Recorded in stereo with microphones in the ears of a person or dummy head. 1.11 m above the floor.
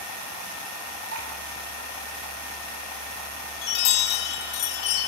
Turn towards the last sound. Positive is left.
turn(degrees=55)  # may be behind; listen again after turning